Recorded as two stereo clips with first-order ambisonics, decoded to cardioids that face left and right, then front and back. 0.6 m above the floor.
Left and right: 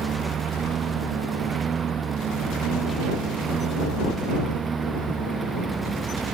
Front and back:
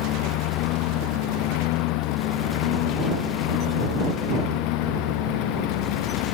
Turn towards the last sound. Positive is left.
turn(degrees=-15)